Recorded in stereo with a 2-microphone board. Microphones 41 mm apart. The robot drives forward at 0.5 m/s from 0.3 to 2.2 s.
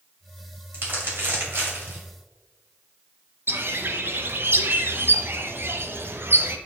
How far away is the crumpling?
About 2.5 m.